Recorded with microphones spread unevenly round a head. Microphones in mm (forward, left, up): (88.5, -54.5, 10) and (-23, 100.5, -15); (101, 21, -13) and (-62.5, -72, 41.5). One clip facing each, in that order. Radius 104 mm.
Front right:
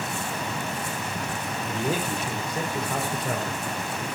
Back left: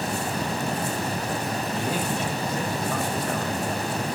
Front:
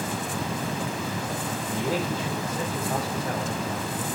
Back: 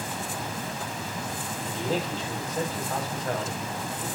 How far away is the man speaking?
About 5 m.